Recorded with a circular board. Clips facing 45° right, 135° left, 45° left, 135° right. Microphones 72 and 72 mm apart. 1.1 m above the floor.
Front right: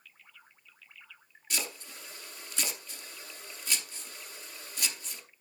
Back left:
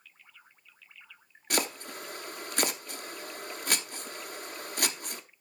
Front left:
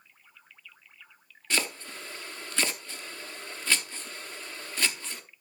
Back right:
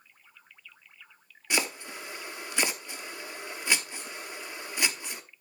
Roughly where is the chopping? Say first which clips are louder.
Back left 7 dB, back right 1 dB; behind left.